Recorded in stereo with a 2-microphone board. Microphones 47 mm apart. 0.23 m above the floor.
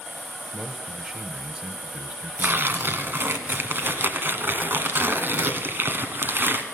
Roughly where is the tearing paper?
Right.